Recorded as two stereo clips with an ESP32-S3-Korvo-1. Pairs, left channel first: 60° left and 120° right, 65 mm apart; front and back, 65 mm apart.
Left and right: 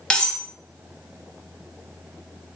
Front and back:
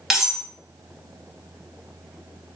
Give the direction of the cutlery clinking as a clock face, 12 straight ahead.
8 o'clock.